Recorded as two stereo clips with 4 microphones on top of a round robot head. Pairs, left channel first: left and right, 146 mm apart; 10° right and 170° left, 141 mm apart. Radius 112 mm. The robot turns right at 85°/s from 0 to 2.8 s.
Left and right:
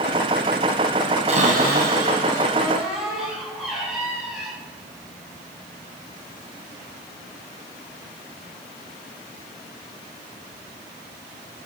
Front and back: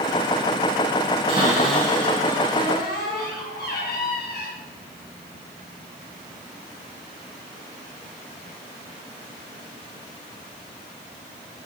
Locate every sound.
1.3 s a cupboard door: 135° right, 2.0 m; by 4.5 s 5° right, 2.0 m